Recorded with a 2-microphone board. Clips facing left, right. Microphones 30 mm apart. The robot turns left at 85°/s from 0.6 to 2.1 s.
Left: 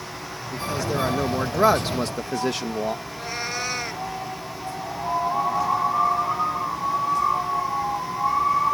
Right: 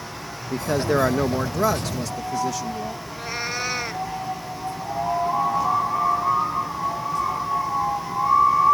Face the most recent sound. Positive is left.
turn(degrees=-5)  # may be behind; listen again after turning